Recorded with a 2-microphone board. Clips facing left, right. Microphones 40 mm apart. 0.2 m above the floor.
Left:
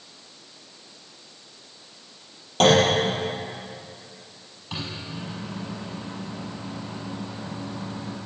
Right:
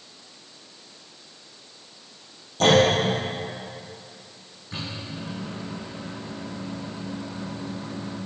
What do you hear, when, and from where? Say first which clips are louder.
2.6 s a clunk: even; 65° left (ahead or behind), 5 m
4.7 s a microwave: left 1 dB; 80° left, 4.5 m